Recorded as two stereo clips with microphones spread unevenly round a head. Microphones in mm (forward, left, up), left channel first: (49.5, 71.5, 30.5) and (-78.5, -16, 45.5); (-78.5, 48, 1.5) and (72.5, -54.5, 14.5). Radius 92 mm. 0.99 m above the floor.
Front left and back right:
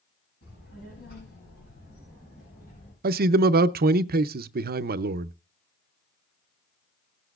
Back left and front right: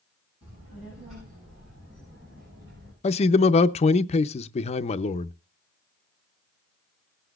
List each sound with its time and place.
0.4 s a child speaking: 25° left, 8 m; by 2.9 s straight ahead, 6.5 m
3.0 s a man speaking: 160° right, 0.6 m